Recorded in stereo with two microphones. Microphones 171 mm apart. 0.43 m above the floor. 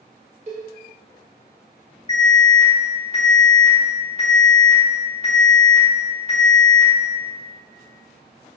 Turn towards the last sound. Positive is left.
turn(degrees=35)  # may be behind; listen again after turning